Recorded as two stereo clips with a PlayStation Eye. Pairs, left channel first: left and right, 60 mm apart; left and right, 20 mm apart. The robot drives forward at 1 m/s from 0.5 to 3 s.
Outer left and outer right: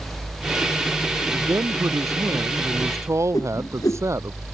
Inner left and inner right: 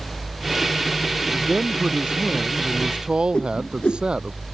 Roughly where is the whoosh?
Left.